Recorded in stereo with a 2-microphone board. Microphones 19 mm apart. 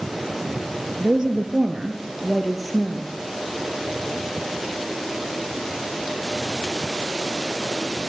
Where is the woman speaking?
55° right (ahead or behind), 2.5 m; by 3.1 s 10° left (ahead or behind), 2.5 m.